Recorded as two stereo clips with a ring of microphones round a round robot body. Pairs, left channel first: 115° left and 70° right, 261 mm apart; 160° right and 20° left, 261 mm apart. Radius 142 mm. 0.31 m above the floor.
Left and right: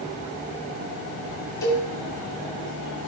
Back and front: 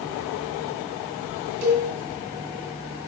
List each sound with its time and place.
1.6 s a cowbell: 35° left, 2.0 m